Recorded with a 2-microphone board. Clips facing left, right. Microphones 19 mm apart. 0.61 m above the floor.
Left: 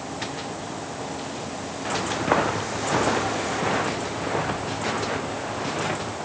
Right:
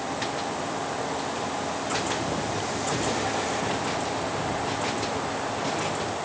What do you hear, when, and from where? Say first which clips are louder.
1.9 s footsteps: left 7 dB; 70° left (ahead or behind)